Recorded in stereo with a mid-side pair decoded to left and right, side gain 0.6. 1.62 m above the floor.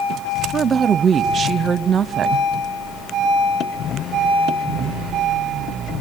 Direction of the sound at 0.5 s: 35° right.